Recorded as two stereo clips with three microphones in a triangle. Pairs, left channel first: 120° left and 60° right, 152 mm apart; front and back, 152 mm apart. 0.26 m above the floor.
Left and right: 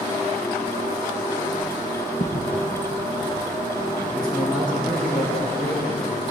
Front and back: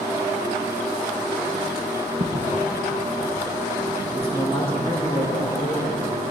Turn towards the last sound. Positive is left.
turn(degrees=130)